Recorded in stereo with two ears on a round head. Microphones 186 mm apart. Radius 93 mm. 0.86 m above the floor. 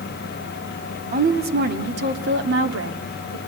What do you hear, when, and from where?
1.1 s a woman speaking: 45° right (ahead or behind), 2.5 m; by 3.4 s 70° right (ahead or behind), 2.5 m